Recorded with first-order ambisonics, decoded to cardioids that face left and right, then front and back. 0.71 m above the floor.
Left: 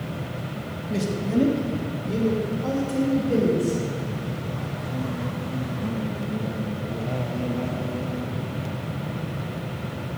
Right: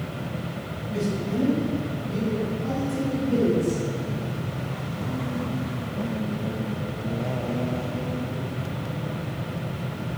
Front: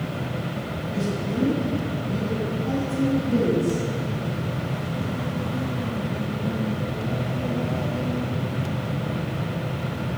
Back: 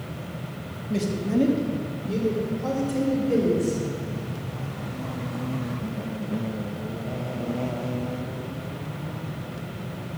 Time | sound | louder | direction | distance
0.9 | a man speaking | left 2 dB, back 3 dB | 130° left | 0.9 m